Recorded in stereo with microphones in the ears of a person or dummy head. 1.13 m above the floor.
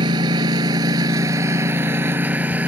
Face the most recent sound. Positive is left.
turn(degrees=-10)  # may be behind; listen again after turning